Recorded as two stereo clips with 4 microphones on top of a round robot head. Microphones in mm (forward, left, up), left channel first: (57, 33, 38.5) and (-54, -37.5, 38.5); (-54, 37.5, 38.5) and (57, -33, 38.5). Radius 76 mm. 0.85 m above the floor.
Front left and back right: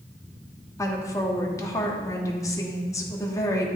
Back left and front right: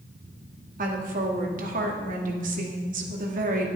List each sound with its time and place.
0.8 s a woman speaking: 30° right, 1.5 m